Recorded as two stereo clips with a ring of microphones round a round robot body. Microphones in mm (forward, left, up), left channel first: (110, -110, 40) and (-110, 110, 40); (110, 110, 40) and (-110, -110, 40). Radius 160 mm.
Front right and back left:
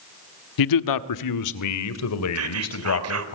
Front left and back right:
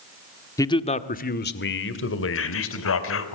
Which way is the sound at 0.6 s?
35° right.